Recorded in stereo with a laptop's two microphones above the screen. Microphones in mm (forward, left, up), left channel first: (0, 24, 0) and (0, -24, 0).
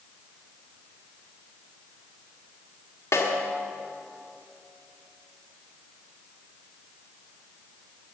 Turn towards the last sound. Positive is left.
turn(degrees=85)